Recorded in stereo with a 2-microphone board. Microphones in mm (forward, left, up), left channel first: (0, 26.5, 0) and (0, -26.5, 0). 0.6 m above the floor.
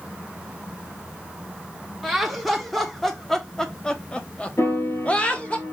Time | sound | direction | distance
2.0 | laughter | centre (ahead or behind) | 1.4 m
4.6 | a piano | 60° left (ahead or behind) | 3 m